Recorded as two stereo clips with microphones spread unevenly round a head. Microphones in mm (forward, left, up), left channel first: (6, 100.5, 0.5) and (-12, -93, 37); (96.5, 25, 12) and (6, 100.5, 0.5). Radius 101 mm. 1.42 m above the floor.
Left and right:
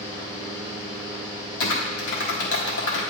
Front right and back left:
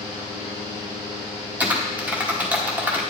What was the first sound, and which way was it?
A fan, 165° left.